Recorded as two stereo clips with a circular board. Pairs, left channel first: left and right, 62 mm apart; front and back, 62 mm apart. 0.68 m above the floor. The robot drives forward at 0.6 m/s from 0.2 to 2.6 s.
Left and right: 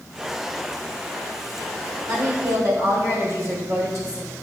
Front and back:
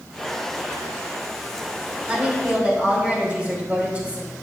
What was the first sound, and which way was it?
A woman speaking, 110° right.